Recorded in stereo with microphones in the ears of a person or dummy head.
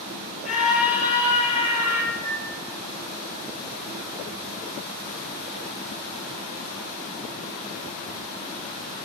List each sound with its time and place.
0.5 s a scream: 45° left (ahead or behind), 5.5 m; by 2.0 s 30° left (ahead or behind), 7 m
2.1 s a microwave: 30° right (ahead or behind), 5.5 m